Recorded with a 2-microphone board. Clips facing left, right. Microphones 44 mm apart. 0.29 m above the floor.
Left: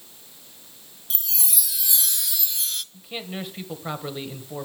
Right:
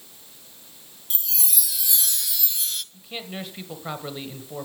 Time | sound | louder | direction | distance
1.1 | a chime | even | centre (ahead or behind) | 0.8 m
2.9 | a man speaking | left 1 dB | 5° left (ahead or behind) | 1.5 m